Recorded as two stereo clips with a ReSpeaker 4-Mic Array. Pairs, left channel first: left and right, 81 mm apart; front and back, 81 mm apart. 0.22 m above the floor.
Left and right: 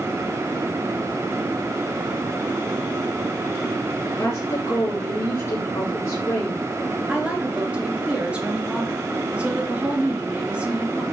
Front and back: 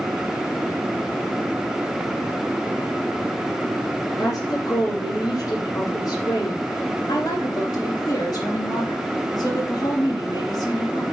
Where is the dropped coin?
I don't hear a dropped coin.